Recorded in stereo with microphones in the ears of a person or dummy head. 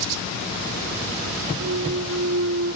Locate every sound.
1.6 s a clunk: 80° right